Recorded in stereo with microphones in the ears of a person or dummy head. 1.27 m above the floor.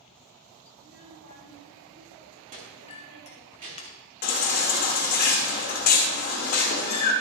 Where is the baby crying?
45° left (ahead or behind), 1.4 m.